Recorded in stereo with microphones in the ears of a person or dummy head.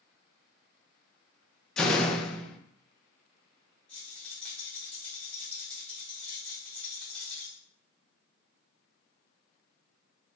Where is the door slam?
5° left (ahead or behind), 0.6 m.